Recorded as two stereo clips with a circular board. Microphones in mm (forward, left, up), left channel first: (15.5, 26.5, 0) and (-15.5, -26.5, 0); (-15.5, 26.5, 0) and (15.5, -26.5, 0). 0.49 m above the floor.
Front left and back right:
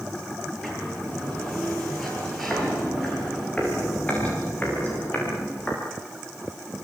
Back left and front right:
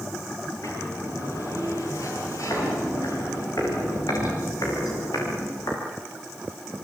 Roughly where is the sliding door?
Behind left.